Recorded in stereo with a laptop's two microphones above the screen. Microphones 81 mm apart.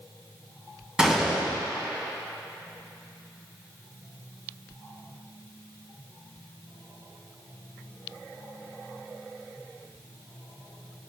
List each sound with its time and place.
1.0 s a gunshot: 10° right (ahead or behind), 2.5 m